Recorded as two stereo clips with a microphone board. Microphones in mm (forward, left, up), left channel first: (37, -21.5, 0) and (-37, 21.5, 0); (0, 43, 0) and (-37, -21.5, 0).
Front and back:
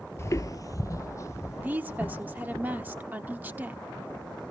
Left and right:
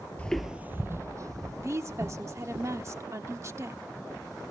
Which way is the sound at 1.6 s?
150° right.